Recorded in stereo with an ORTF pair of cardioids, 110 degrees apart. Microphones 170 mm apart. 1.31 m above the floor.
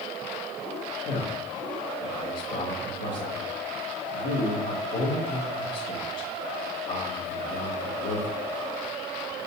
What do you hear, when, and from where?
1.1 s a man speaking: 60° left, 1.9 m